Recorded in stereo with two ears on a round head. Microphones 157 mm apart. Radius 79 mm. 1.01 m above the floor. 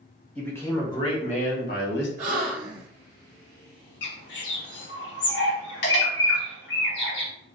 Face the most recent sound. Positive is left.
turn(degrees=65)  # may be behind; listen again after turning